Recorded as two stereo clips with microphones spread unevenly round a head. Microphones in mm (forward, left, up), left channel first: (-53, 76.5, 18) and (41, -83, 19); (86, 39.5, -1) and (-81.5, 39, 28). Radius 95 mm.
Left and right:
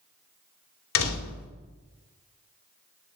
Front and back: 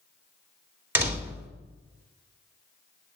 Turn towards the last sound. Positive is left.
turn(degrees=105)